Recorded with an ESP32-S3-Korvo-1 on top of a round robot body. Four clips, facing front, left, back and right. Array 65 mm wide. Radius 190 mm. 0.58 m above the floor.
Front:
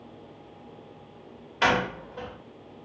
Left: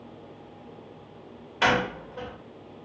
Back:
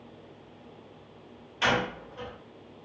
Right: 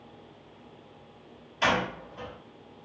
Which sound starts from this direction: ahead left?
A door slam, at 1.6 s.